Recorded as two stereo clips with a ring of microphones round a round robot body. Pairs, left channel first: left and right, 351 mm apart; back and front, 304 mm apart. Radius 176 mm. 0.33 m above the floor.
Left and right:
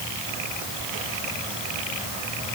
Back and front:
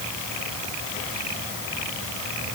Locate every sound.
Only background noise.